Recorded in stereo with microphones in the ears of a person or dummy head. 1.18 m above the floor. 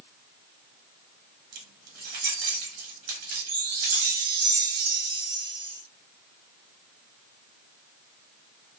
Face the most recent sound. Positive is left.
turn(degrees=-30)  # may be behind; listen again after turning